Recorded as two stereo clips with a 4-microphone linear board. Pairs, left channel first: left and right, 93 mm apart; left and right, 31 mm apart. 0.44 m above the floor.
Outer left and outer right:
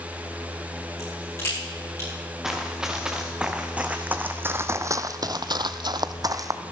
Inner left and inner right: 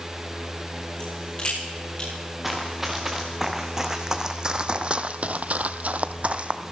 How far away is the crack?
About 8 m.